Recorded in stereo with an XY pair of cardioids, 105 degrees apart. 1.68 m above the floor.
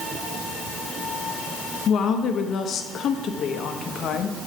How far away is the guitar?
I don't hear a guitar.